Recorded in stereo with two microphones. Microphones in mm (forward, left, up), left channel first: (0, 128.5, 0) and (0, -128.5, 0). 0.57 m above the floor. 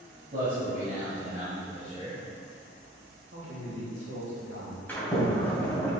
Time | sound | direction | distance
0.3 | a man speaking | 40° right (ahead or behind) | 3 m
3.3 | a man speaking | 70° right (ahead or behind) | 3 m
4.9 | a sliding door | 10° left (ahead or behind) | 2.5 m